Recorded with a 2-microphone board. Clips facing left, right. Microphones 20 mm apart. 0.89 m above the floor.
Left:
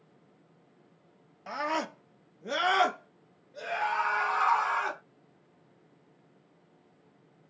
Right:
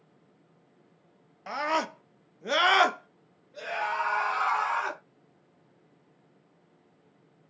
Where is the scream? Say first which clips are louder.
Right 3 dB; 15° right (ahead or behind), 0.8 m; by 5.0 s 10° right (ahead or behind), 1.4 m.